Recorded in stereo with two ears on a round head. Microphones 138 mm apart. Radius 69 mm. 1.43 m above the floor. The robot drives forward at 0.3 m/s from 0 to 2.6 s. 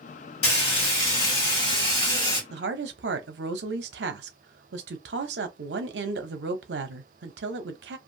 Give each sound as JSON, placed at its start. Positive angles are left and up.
{"t": 0.4, "sound": "frying", "side_deg": 40, "distance_m": 1.6}
{"t": 2.5, "sound": "a woman speaking", "side_deg": -80, "distance_m": 0.8}